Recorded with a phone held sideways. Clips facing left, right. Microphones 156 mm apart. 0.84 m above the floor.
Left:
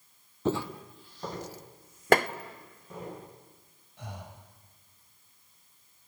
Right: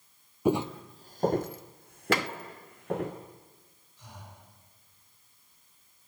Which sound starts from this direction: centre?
Footsteps, at 0.5 s.